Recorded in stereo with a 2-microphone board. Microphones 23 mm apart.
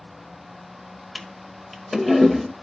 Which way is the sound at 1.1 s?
5° right (ahead or behind).